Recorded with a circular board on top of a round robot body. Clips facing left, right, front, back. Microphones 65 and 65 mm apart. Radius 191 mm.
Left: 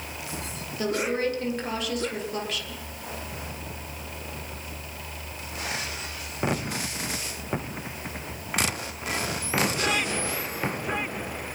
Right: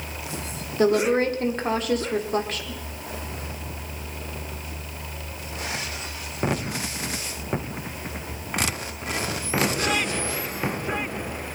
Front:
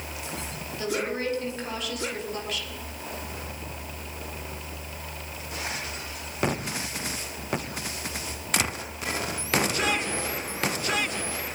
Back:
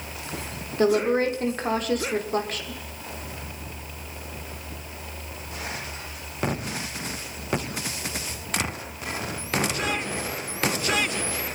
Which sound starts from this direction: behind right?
A woman speaking, at 0.8 s.